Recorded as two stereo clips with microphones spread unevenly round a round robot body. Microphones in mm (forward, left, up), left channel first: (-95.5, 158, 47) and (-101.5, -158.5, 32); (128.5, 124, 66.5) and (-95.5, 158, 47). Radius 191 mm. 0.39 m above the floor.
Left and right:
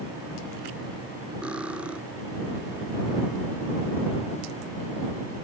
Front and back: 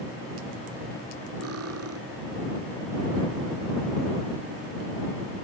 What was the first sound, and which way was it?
Cutlery clinking, straight behind.